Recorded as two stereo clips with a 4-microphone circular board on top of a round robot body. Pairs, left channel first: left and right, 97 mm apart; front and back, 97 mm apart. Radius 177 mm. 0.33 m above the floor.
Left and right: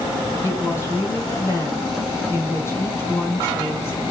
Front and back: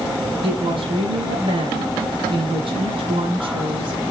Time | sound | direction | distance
0.4 | a woman speaking | 150° left | 6 m